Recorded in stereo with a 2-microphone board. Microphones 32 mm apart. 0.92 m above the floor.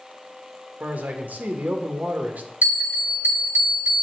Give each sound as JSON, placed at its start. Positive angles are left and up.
{"t": 0.8, "sound": "a man speaking", "side_deg": -50, "distance_m": 1.0}
{"t": 2.6, "sound": "a bell", "side_deg": -50, "distance_m": 2.0}